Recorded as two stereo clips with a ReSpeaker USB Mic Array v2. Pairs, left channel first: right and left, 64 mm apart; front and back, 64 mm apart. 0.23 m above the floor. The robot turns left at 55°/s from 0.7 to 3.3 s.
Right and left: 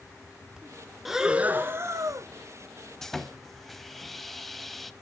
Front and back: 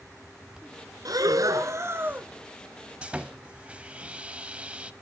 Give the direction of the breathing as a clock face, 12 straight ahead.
6 o'clock.